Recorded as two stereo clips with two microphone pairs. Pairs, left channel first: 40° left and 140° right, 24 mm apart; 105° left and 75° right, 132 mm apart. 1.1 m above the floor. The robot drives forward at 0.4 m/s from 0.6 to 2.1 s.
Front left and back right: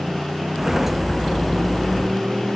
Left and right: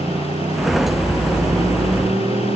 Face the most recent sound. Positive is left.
turn(degrees=-115)